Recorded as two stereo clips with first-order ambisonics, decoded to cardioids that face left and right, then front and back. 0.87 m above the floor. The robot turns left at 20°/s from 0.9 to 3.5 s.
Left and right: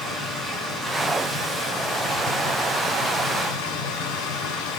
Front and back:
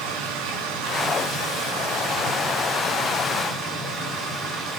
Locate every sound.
0.0 s running water: 160° left, 7 m; by 4.8 s 110° left, 7 m